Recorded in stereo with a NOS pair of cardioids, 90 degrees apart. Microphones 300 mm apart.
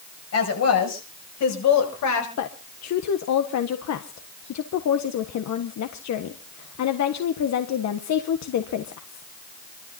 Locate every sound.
0.3 s a woman speaking: 55° left, 8.5 m; by 2.3 s 70° left, 6.5 m
2.4 s a woman speaking: 60° left, 1.5 m